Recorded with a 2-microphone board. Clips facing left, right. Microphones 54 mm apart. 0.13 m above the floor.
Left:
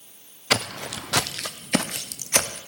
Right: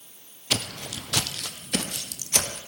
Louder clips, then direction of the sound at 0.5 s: Left 6 dB; 70° left (ahead or behind).